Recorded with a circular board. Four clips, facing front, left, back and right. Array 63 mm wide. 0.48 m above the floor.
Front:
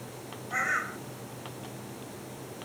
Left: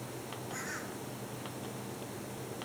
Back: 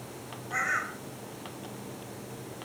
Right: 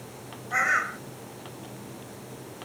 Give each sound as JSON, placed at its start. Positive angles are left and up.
{"t": 0.5, "sound": "a bird", "azimuth_deg": -90}